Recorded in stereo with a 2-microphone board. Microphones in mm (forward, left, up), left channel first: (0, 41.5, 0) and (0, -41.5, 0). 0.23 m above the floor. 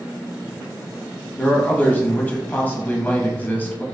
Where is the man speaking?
20° left (ahead or behind), 1.1 m.